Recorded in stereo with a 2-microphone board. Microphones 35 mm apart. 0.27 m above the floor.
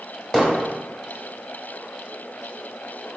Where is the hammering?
15° left (ahead or behind), 1.0 m.